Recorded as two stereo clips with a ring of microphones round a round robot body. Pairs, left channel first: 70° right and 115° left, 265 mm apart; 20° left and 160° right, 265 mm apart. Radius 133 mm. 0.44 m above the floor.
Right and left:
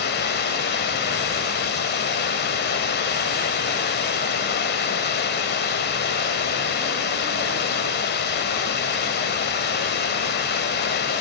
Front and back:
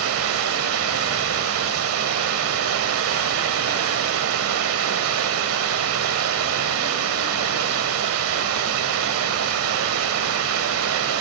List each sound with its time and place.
0.0 s running water: 120° right, 1.3 m